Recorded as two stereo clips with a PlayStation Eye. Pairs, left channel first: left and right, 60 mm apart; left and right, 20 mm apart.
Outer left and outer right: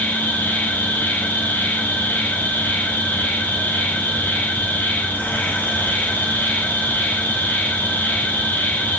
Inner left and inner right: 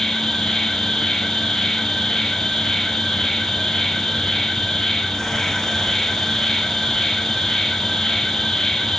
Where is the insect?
25° left (ahead or behind), 5.5 m.